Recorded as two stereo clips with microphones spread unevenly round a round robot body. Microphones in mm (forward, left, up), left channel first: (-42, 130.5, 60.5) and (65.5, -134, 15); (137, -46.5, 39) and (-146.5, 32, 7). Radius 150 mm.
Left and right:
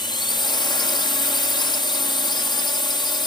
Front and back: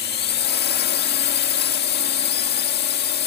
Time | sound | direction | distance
0.0 | a drone | 35° left | ?